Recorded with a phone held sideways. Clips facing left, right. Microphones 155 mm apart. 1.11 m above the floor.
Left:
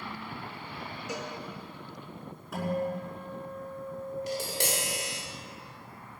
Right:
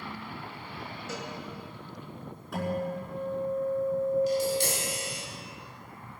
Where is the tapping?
85° left, 3.5 m.